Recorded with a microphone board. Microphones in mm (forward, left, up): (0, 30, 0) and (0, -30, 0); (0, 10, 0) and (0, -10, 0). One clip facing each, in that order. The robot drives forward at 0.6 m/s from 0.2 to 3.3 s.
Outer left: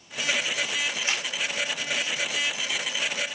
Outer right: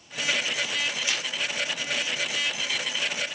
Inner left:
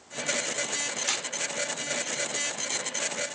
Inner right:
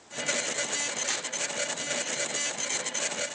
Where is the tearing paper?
35° left (ahead or behind), 5 m.